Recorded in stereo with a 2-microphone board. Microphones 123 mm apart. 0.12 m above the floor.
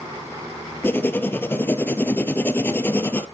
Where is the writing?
15° left (ahead or behind), 0.6 m.